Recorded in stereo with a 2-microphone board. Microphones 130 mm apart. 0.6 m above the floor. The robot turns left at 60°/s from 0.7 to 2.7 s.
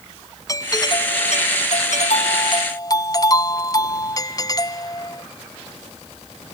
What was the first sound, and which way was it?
A doorbell, 150° left.